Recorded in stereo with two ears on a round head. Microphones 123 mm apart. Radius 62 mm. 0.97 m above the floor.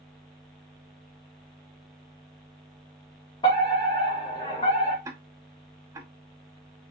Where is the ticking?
20° right (ahead or behind), 0.5 m.